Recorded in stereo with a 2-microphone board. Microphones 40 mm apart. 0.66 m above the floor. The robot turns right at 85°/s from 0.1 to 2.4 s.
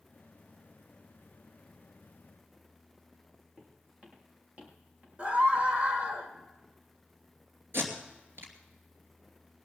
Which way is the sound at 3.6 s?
30° right (ahead or behind).